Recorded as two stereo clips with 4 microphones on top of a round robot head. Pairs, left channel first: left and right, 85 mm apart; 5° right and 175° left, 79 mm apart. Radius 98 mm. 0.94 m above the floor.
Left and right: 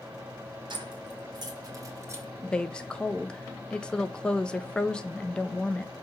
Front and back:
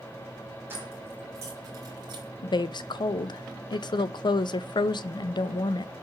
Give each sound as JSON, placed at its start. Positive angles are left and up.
{"t": 0.7, "sound": "keys jangling", "azimuth_deg": -115, "distance_m": 1.8}
{"t": 2.4, "sound": "a woman speaking", "azimuth_deg": 10, "distance_m": 0.6}